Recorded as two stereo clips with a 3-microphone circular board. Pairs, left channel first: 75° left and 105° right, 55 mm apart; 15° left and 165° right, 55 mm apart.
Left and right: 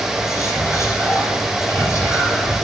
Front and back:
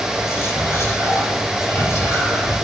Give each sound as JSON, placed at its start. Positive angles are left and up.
{"t": 0.1, "sound": "whispering", "azimuth_deg": 50, "distance_m": 4.5}